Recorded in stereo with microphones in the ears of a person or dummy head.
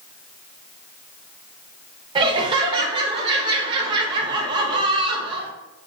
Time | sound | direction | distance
2.1 | laughter | 25° right (ahead or behind) | 0.5 m